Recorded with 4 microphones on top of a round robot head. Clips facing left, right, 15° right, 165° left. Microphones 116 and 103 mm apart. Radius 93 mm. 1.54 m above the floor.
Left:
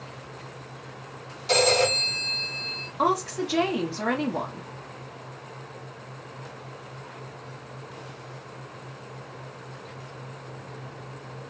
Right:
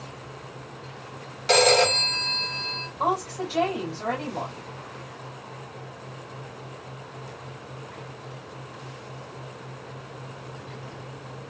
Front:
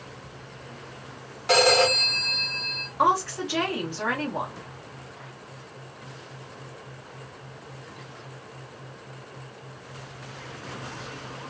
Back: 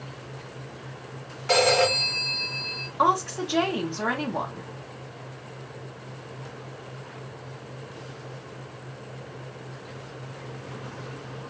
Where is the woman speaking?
95° left, 0.9 m.